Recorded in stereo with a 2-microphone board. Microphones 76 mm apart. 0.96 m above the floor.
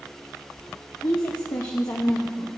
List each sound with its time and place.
1.0 s a woman speaking: 50° left (ahead or behind), 1.3 m